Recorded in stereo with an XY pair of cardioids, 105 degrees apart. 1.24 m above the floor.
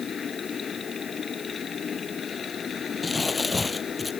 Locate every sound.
0.0 s a machine running: 45° left
3.0 s crumpling: 25° left